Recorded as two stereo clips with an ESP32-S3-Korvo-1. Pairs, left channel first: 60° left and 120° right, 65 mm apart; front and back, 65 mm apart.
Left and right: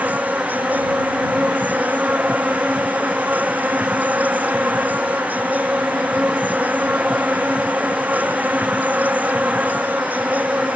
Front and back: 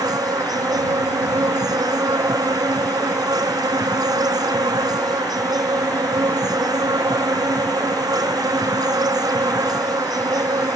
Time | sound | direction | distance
0.0 | an insect | 175° left | ?